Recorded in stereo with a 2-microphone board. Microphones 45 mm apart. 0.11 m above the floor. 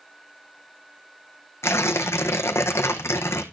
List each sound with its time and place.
1.6 s tearing paper: 75° left (ahead or behind), 1.3 m